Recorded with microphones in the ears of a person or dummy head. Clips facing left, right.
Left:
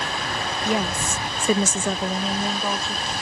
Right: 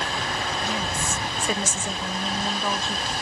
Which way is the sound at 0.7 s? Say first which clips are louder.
Left 4 dB; 45° left (ahead or behind).